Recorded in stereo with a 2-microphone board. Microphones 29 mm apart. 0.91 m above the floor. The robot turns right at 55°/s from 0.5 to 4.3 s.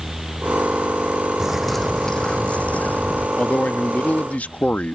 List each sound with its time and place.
1.4 s a bird: 15° right; by 3.3 s 90° left
3.4 s a man speaking: 60° left; by 5.0 s 110° left